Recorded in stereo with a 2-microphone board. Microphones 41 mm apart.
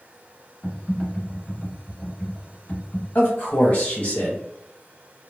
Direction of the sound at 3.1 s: 40° left (ahead or behind).